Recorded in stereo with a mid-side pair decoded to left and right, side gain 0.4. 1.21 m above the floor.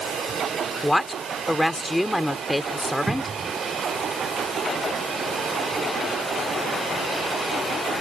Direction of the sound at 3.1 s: 25° right.